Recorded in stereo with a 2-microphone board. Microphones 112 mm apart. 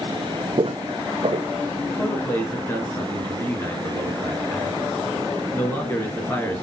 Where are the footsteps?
55° right (ahead or behind), 0.6 m.